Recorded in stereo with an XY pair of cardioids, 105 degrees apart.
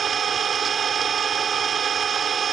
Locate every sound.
0.0 s an engine running: 45° right